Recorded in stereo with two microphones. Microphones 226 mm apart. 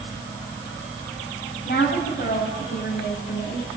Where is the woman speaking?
45° left (ahead or behind), 4 m.